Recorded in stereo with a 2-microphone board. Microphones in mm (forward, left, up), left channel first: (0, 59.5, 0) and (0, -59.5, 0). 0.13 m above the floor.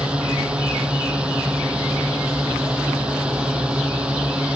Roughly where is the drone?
Centre.